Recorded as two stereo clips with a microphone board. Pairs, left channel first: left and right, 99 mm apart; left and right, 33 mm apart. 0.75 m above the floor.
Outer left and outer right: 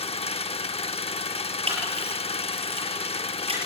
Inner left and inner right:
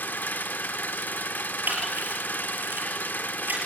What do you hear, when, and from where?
0.0 s an engine running: 85° left, 0.7 m
1.7 s a camera shutter: 85° right, 6.5 m